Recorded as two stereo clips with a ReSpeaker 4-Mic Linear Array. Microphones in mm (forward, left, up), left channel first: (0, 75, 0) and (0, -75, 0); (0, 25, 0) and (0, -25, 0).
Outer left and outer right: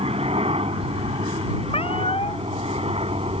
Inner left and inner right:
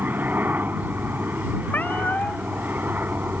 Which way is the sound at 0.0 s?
40° right (ahead or behind).